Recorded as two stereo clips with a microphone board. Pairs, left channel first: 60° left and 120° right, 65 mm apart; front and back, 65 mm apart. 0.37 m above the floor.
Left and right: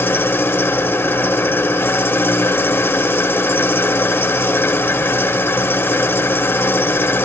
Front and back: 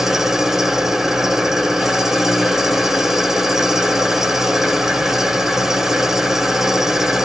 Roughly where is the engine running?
Left.